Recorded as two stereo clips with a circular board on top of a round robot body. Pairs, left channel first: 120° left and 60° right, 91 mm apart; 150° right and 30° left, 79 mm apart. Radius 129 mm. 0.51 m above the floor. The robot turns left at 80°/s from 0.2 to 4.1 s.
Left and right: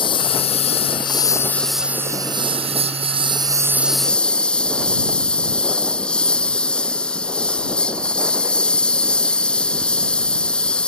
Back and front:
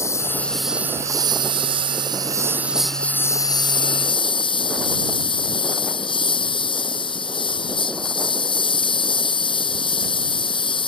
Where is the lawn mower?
155° left; by 10.9 s 160° right.